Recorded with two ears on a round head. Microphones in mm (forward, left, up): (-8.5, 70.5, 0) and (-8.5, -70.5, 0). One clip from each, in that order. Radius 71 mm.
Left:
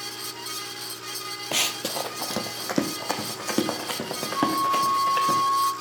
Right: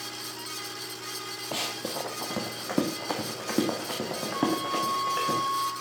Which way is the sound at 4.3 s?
60° right (ahead or behind).